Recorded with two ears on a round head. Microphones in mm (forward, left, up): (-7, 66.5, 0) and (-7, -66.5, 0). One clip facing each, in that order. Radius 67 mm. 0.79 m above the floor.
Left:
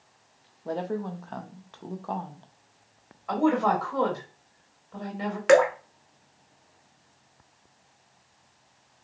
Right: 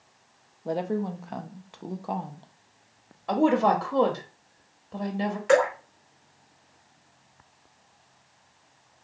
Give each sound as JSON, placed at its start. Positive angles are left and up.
{"t": 0.7, "sound": "a woman speaking", "side_deg": -15, "distance_m": 0.5}
{"t": 3.3, "sound": "a woman speaking", "side_deg": -40, "distance_m": 0.8}
{"t": 5.5, "sound": "dripping", "side_deg": 75, "distance_m": 1.0}